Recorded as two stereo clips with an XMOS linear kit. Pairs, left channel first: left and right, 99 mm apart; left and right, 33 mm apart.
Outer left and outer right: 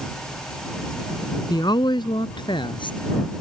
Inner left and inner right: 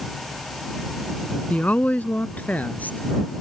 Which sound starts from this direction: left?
A woman speaking, at 1.5 s.